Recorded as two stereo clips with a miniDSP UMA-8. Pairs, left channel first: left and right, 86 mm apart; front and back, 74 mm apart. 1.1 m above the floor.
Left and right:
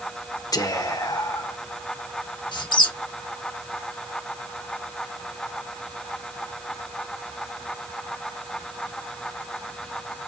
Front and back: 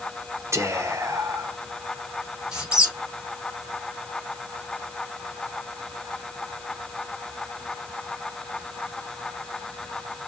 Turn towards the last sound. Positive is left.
turn(degrees=105)